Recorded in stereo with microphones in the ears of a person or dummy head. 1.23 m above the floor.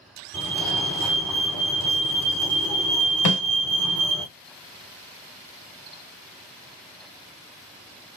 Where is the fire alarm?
5° left (ahead or behind), 1.3 m.